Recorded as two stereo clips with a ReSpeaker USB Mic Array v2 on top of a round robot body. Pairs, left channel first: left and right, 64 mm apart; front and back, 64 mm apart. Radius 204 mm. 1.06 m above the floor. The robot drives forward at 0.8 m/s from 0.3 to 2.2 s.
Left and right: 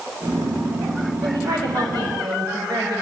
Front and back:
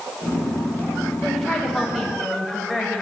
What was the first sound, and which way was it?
A woman speaking, 85° right.